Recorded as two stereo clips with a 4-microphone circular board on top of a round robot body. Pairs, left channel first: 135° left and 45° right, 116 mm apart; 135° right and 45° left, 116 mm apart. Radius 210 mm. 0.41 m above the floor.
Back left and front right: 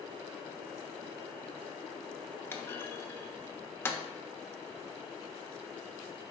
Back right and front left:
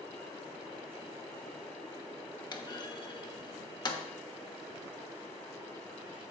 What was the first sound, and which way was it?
A clunk, 165° right.